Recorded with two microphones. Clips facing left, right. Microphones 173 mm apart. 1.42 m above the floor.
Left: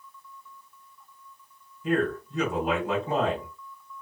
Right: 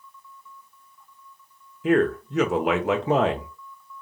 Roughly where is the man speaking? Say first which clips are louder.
Right 6 dB; right.